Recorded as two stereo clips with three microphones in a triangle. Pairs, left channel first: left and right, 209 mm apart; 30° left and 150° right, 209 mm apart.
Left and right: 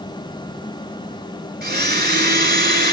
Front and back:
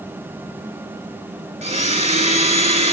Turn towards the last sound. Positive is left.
turn(degrees=-105)